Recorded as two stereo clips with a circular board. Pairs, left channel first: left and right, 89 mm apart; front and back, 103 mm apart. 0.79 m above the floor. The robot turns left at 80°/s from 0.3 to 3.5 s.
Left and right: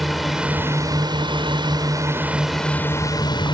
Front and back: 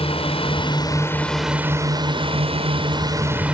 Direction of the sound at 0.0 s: Straight ahead.